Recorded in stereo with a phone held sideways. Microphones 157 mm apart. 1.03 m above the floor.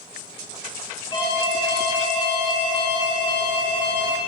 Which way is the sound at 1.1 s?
35° left (ahead or behind).